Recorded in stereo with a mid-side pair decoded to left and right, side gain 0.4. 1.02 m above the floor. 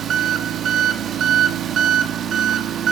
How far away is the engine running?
About 0.8 m.